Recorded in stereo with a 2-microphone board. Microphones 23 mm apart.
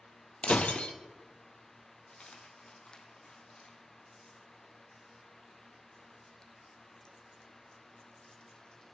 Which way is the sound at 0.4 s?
70° left (ahead or behind).